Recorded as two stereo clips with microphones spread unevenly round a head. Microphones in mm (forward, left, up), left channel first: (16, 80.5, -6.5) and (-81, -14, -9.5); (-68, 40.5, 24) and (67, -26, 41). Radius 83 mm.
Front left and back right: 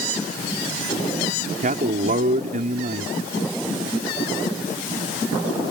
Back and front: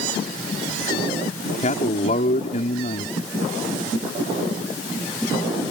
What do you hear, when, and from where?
1.6 s a man speaking: 160° right